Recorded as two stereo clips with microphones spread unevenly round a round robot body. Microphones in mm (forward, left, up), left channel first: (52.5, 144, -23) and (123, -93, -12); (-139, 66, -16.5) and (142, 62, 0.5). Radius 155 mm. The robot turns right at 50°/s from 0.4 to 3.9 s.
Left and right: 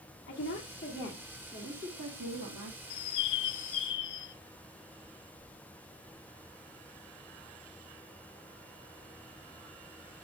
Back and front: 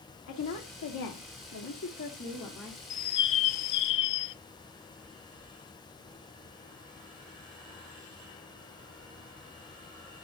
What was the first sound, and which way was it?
A woman speaking, 155° left.